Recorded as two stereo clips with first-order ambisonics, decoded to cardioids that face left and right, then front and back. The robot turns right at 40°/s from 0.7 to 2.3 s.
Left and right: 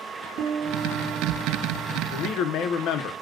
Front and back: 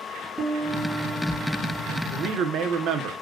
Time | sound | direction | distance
0.4 | a piano | 100° right | 2.5 m
2.1 | a man speaking | 125° left | 0.5 m